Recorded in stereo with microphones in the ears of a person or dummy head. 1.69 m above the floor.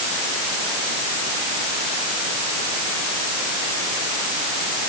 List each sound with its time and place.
Only background noise.